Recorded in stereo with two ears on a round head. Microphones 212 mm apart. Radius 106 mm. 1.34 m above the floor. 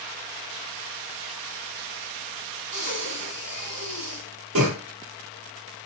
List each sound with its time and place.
2.7 s breathing: 65° right (ahead or behind), 2.0 m